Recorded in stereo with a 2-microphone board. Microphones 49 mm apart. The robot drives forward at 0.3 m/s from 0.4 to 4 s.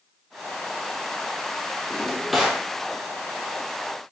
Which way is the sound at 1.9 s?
Centre (ahead or behind).